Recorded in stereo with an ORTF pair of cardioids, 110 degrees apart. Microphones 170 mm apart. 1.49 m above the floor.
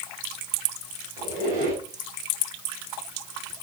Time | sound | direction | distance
1.2 | a squeak | 65° right | 5.5 m